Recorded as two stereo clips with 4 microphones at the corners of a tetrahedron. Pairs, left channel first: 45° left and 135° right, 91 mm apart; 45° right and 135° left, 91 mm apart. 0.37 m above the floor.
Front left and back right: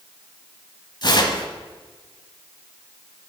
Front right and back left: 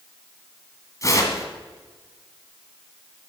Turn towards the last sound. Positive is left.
turn(degrees=5)